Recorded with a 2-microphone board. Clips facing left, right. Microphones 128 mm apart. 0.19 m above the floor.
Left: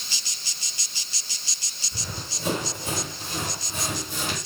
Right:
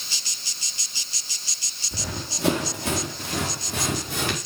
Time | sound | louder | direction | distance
1.9 | running footsteps | right 4 dB | 80° right | 5 m